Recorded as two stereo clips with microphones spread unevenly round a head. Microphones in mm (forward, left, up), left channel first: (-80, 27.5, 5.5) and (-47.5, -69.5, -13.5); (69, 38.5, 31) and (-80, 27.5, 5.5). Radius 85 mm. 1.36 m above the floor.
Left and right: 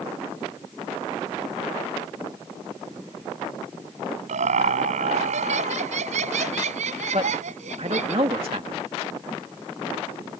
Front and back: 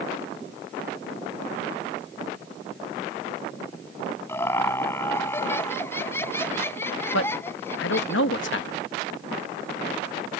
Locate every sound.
4.3 s laughter: 75° right
7.1 s a man speaking: 15° right